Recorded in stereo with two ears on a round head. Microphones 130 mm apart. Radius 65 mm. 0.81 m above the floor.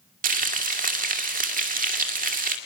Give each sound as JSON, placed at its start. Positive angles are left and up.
{"t": 0.2, "sound": "frying", "side_deg": -60, "distance_m": 2.0}